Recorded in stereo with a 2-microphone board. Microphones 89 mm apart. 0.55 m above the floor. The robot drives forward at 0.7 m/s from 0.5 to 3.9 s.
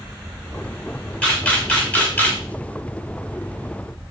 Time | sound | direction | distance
1.2 | a camera shutter | 15° left (ahead or behind) | 2.0 m